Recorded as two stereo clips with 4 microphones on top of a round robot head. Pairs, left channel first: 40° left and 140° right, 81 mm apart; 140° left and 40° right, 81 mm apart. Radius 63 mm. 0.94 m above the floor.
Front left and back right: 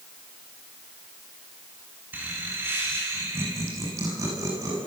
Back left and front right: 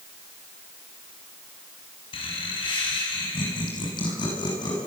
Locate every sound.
2.1 s laughter: 155° left, 7.5 m; by 4.8 s 175° left, 8.5 m